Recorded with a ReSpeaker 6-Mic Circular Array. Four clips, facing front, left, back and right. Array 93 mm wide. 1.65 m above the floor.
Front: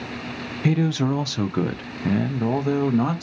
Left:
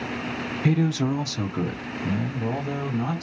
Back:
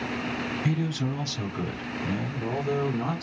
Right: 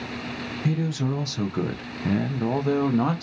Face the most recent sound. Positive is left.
turn(degrees=-50)